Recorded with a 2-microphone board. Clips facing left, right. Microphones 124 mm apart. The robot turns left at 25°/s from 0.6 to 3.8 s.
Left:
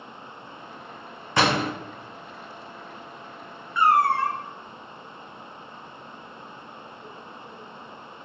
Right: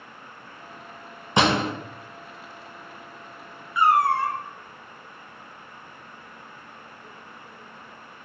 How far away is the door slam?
About 1.1 m.